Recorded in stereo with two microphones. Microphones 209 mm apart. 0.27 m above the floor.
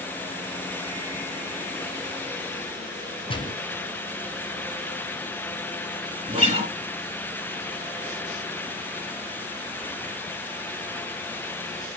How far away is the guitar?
About 4 m.